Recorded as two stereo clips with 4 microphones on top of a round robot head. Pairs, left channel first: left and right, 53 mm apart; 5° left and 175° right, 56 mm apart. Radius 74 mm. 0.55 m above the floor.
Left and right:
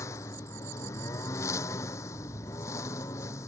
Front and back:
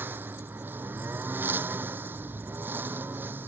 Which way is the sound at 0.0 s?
130° left.